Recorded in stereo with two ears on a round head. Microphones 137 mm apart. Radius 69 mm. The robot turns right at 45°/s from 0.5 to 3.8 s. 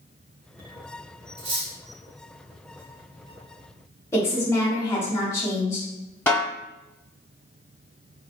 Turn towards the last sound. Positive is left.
turn(degrees=15)  # may be behind; listen again after turning